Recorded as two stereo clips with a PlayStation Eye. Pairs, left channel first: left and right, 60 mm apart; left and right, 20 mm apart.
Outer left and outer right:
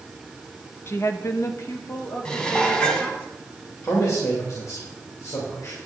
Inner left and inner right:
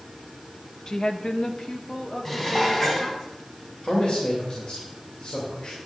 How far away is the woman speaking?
About 0.8 m.